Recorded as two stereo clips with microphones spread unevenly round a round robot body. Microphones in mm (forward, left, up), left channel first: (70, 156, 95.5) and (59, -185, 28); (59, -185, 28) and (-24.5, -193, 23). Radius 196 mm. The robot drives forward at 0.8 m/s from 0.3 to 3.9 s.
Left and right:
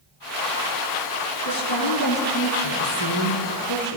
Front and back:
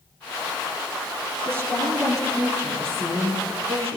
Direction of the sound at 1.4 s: 115° left.